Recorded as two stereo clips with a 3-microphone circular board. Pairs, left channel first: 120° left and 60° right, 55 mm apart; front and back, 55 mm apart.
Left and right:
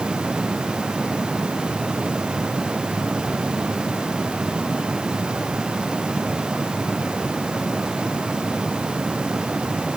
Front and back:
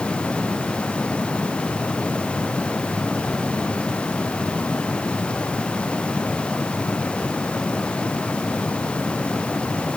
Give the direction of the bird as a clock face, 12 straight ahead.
No bird in this recording.